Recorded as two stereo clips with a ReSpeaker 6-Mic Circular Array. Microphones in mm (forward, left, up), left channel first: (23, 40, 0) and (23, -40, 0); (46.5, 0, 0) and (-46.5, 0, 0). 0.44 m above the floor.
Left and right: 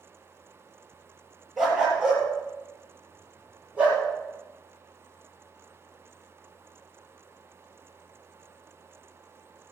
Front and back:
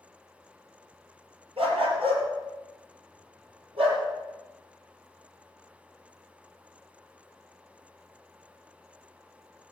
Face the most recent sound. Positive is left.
turn(degrees=-165)